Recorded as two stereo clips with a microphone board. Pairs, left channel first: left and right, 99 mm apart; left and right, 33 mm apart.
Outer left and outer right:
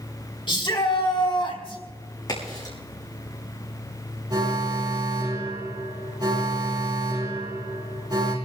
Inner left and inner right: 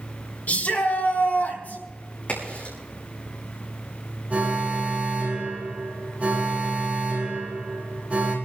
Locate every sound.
0.5 s a shout: 55° left (ahead or behind), 3 m; by 1.8 s 60° left (ahead or behind), 4 m
2.3 s a crack: 45° left (ahead or behind), 6.5 m
4.3 s an alarm: 40° right (ahead or behind), 6 m